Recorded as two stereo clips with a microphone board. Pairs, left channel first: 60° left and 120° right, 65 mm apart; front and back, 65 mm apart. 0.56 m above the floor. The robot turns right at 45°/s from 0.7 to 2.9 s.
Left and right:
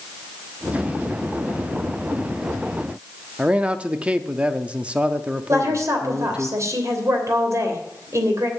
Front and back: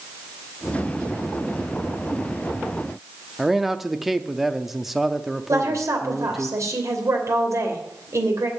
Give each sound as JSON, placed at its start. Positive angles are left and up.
{"t": 3.4, "sound": "a man speaking", "azimuth_deg": -105, "distance_m": 0.6}
{"t": 5.5, "sound": "a woman speaking", "azimuth_deg": -150, "distance_m": 3.0}